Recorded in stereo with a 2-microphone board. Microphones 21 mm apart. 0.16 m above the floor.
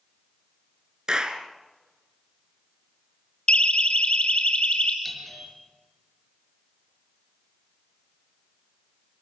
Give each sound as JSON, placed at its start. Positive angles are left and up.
{"t": 1.1, "sound": "a clap", "side_deg": -40, "distance_m": 2.0}
{"t": 3.5, "sound": "a siren", "side_deg": 55, "distance_m": 3.0}
{"t": 5.0, "sound": "a doorbell", "side_deg": 5, "distance_m": 4.0}